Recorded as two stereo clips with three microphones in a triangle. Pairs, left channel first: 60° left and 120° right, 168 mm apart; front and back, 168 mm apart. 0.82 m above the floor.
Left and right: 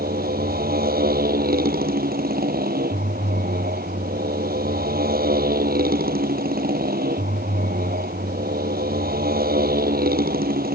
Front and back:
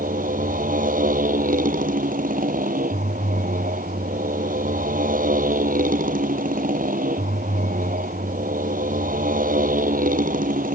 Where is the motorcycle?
145° right.